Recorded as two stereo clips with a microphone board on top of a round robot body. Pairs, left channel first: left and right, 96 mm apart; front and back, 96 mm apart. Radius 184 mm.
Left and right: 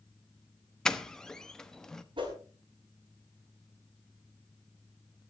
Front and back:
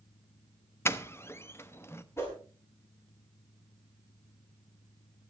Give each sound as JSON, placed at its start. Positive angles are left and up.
{"t": 0.8, "sound": "a doorbell", "azimuth_deg": 15, "distance_m": 1.5}
{"t": 2.2, "sound": "a whoosh", "azimuth_deg": -60, "distance_m": 5.0}